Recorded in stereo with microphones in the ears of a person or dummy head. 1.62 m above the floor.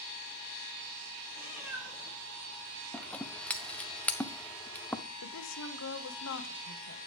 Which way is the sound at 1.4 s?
10° right (ahead or behind).